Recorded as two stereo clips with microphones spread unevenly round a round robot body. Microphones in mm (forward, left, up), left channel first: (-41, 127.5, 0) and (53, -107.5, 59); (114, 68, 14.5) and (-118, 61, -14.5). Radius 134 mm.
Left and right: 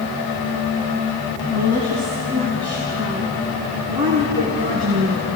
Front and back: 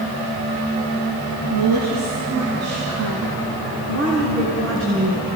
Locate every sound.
1.5 s a woman speaking: 175° right, 3.5 m; by 5.2 s 130° right, 5 m